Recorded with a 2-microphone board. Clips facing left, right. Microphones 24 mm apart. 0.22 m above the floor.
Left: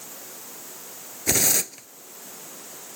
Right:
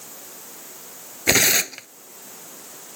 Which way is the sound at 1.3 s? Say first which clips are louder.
Right 6 dB; 45° right (ahead or behind).